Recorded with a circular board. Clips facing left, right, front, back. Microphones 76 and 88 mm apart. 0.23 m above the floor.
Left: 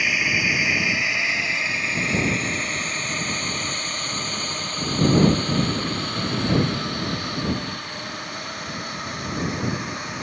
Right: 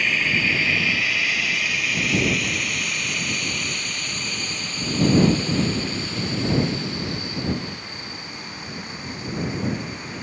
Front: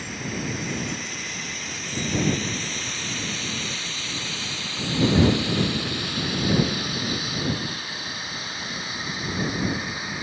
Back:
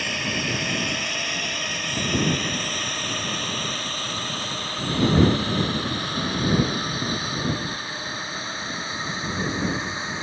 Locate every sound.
0.0 s a drone: 170° left; by 10.2 s 115° left